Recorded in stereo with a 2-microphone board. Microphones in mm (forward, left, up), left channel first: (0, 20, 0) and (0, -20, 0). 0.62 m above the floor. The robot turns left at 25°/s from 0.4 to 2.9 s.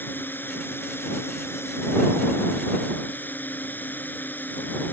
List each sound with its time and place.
0.0 s a drone: 120° left; by 4.9 s 60° left